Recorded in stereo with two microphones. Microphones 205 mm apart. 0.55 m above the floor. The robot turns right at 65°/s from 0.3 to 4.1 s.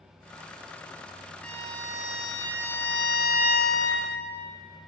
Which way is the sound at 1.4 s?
5° left.